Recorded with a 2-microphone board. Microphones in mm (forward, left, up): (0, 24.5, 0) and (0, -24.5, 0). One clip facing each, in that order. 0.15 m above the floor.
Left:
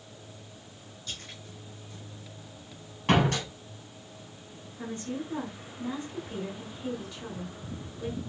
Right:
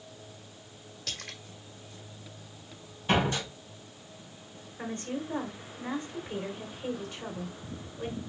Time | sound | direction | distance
1.1 | a splash | 75° right (ahead or behind) | 0.9 m
3.1 | a door slam | 60° left (ahead or behind) | 3 m
4.8 | a woman speaking | 35° right (ahead or behind) | 1.3 m